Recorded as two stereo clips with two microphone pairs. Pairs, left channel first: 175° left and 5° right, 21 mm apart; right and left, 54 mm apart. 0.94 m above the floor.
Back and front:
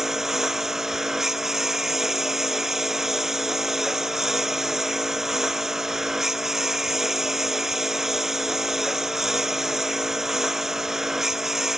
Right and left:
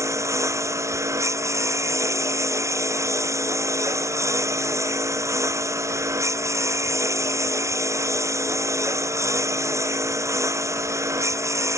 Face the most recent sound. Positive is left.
turn(degrees=65)